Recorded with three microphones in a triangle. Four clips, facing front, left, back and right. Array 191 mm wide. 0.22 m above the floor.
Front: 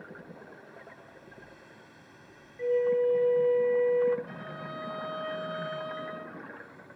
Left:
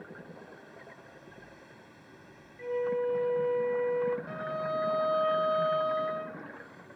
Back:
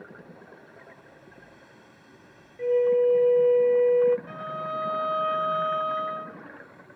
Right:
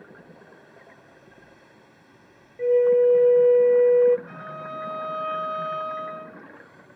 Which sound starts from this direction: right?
A flute, at 2.6 s.